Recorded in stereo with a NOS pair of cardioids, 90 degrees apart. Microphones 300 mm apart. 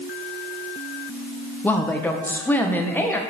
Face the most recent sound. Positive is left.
turn(degrees=5)